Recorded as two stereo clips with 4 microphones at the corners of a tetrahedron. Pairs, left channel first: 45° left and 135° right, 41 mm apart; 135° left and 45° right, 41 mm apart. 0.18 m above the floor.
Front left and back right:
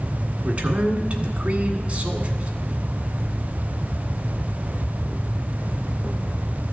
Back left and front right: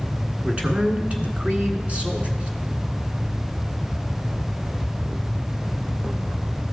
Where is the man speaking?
90° right, 1.5 m.